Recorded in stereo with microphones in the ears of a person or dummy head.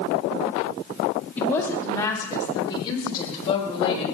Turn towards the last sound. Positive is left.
turn(degrees=30)  # may be behind; listen again after turning